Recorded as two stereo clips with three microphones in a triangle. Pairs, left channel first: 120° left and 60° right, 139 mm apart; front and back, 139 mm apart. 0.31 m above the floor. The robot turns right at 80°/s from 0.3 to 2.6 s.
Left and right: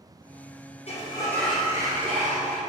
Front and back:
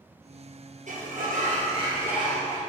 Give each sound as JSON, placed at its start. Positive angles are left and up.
{"t": 0.9, "sound": "a sliding door", "azimuth_deg": 160, "distance_m": 1.9}